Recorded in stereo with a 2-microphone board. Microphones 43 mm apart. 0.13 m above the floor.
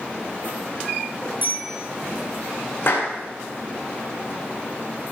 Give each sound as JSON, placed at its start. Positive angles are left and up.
{"t": 1.4, "sound": "a bicycle bell", "side_deg": -50, "distance_m": 8.0}
{"t": 2.9, "sound": "a clap", "side_deg": 50, "distance_m": 6.0}